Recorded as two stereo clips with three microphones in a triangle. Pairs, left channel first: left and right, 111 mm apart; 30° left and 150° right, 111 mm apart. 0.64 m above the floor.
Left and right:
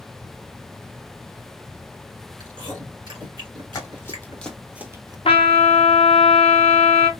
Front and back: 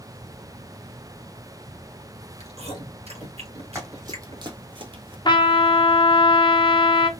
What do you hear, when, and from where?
2.4 s chewing: 130° right, 2 m
3.8 s running footsteps: 150° left, 1.7 m; by 5.2 s 130° right, 1.0 m
5.2 s a trumpet: 70° left, 0.6 m